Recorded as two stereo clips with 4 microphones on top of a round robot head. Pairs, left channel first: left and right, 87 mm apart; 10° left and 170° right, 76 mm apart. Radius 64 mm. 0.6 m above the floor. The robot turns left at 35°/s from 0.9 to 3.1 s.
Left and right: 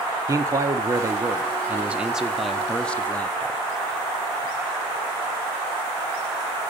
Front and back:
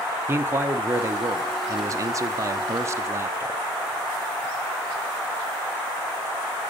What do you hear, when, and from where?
0.3 s a man speaking: 125° right, 0.9 m; by 3.6 s 160° left, 0.9 m